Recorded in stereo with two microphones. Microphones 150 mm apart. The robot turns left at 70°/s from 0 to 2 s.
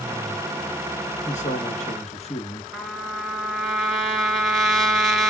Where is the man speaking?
115° left, 2.5 m; by 2.6 s 60° left, 2.5 m.